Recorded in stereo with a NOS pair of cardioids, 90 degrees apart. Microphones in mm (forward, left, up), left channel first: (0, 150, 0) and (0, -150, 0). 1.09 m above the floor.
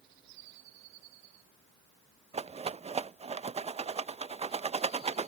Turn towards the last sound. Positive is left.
turn(degrees=-20)